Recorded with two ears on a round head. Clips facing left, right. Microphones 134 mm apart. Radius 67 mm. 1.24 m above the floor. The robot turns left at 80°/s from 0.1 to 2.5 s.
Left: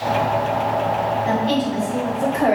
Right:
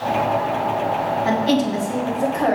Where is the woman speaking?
95° right, 0.7 m; by 2.5 s 165° left, 0.7 m.